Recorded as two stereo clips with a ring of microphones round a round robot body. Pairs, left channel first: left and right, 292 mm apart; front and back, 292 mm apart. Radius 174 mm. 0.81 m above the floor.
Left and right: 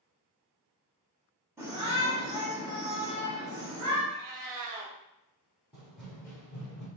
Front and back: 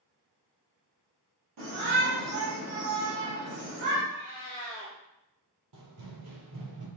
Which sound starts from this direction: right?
A cat meowing, at 4.1 s.